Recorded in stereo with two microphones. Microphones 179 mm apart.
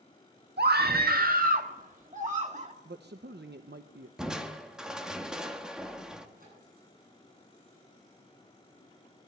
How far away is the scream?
About 1.4 m.